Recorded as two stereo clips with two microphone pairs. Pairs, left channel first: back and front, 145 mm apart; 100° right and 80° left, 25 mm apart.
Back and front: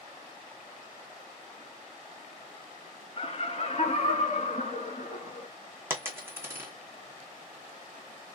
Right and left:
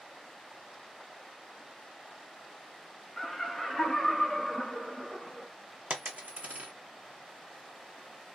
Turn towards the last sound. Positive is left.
turn(degrees=75)